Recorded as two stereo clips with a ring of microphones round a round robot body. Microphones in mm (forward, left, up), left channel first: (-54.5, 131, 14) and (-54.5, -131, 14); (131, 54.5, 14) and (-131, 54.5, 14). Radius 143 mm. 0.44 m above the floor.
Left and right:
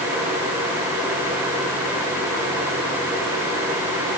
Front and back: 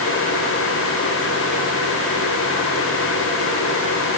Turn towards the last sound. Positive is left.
No sound to turn to.